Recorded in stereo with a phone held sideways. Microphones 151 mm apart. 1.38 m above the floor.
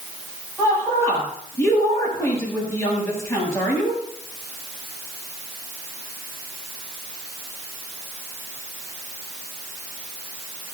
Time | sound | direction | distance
0.6 | a woman speaking | 20° left (ahead or behind) | 7 m